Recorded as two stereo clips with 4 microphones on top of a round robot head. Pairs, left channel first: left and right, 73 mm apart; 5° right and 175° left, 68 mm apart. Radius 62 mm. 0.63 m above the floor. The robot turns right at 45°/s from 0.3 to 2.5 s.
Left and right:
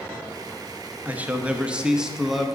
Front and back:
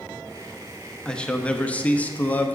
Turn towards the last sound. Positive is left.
turn(degrees=0)